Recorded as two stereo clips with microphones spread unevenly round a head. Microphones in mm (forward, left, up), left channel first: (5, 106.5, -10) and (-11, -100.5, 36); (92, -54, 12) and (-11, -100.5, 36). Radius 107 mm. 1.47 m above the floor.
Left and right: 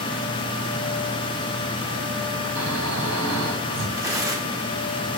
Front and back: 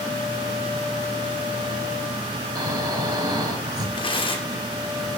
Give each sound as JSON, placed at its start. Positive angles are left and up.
{"t": 2.5, "sound": "snoring", "azimuth_deg": -105, "distance_m": 7.5}
{"t": 4.0, "sound": "tearing paper", "azimuth_deg": -20, "distance_m": 4.0}